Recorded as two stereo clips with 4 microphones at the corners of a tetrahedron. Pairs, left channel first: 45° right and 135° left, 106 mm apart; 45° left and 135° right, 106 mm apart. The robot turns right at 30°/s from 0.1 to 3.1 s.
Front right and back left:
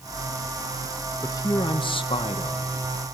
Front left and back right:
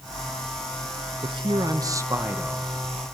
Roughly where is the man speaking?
Right.